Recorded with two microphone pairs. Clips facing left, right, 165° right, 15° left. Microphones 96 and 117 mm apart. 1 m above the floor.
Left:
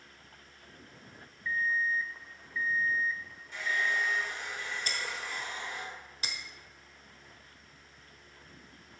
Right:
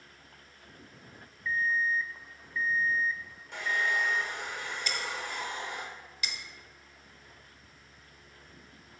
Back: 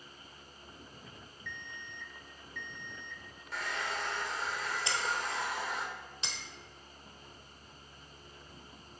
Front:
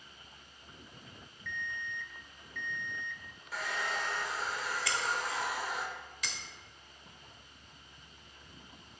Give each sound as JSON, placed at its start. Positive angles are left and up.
{"t": 1.4, "sound": "an alarm clock", "azimuth_deg": 25, "distance_m": 0.5}
{"t": 3.5, "sound": "a hair dryer", "azimuth_deg": -70, "distance_m": 1.1}
{"t": 4.9, "sound": "breaking glass", "azimuth_deg": 135, "distance_m": 1.0}